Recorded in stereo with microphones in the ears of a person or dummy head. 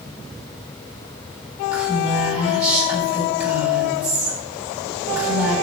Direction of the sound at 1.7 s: 10° right (ahead or behind).